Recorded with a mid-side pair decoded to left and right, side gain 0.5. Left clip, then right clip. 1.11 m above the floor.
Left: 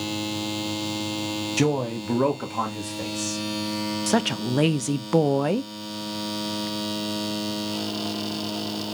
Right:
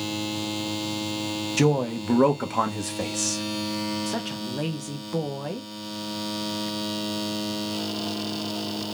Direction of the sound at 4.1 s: 55° left.